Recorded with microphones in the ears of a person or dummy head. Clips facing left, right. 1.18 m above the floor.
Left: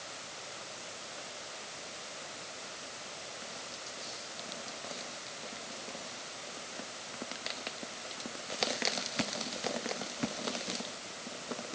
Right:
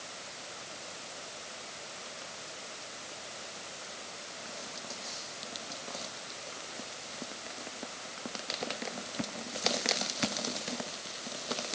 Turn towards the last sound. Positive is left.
No sound to turn to.